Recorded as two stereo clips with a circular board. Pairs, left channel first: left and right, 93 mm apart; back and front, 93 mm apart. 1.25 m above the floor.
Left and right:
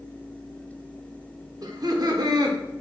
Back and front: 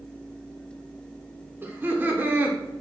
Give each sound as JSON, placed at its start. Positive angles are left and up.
{"t": 1.6, "sound": "laughter", "azimuth_deg": -60, "distance_m": 0.9}